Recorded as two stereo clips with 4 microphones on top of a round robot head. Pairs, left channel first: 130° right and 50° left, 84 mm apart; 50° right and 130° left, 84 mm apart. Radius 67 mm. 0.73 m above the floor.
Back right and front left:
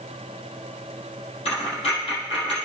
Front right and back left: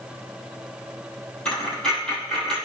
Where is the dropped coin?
130° right, 4 m.